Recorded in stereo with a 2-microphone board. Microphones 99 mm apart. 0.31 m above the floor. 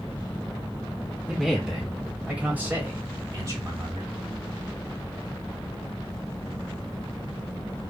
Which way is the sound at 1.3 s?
Centre (ahead or behind).